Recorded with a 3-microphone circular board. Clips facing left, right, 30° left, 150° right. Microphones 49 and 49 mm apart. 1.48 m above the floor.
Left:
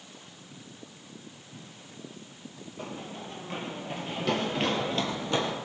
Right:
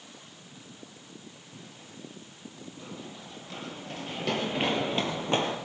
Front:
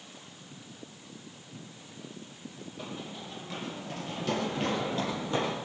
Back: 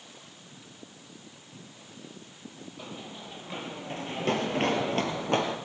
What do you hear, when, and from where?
2.8 s running footsteps: 120° left, 2.5 m; by 5.5 s 135° right, 3 m